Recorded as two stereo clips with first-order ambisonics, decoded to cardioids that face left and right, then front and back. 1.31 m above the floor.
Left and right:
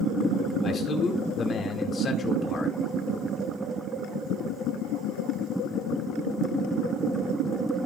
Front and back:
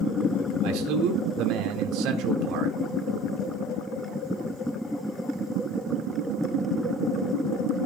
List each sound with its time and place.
0.6 s a man speaking: 155° left, 2 m